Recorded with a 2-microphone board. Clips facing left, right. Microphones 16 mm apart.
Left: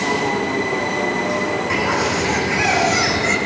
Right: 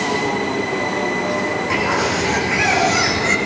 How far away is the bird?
About 3 m.